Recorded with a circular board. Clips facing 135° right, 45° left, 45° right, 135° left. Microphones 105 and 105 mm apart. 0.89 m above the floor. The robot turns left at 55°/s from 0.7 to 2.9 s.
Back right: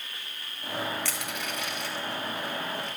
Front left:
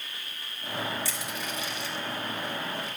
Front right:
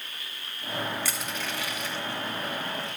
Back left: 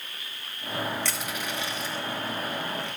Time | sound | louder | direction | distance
1.1 | crushing | back right 1 dB, back left 1 dB | 130° right | 1.9 m